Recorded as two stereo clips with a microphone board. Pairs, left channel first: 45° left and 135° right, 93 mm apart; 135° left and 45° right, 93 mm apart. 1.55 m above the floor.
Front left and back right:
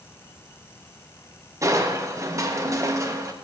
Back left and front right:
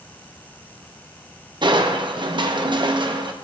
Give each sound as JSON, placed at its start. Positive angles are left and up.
{"t": 1.6, "sound": "crushing", "azimuth_deg": -80, "distance_m": 0.6}